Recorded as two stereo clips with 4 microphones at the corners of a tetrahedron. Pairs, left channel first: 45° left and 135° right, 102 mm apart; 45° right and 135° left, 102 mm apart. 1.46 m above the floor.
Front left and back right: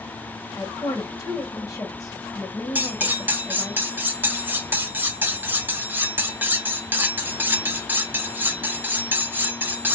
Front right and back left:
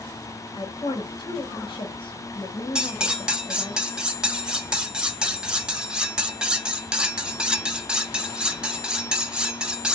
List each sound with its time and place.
0.5 s a woman speaking: 10° right, 1.1 m
2.8 s cutlery clinking: 155° right, 0.5 m